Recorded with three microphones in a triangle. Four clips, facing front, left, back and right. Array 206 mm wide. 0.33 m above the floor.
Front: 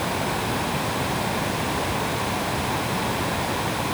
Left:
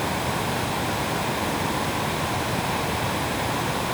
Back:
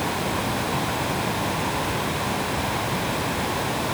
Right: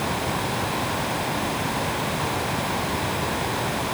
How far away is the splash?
No splash in this recording.